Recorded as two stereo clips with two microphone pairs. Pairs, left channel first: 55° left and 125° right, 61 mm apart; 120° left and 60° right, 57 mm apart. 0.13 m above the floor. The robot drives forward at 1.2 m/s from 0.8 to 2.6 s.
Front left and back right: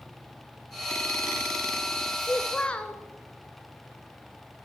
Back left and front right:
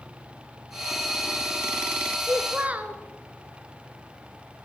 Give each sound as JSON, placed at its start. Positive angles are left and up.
{"t": 2.2, "sound": "a child speaking", "azimuth_deg": -5, "distance_m": 1.4}